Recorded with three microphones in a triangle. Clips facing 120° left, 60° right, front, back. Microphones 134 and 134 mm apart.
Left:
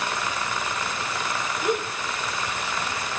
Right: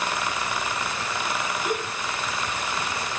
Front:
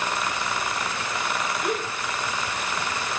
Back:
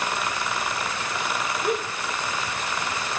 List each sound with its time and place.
1.6 s a gasp: 135° left, 1.4 m